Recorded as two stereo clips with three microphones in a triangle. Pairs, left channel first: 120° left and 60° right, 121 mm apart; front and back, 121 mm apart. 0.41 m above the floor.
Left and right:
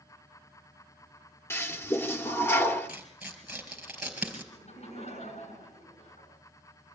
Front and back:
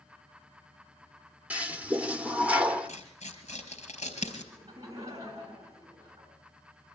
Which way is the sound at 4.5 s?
120° left.